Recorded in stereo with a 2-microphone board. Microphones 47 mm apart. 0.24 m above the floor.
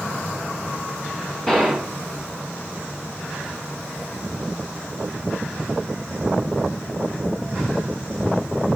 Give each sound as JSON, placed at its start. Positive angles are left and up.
{"t": 1.5, "sound": "a gunshot", "side_deg": 10, "distance_m": 1.0}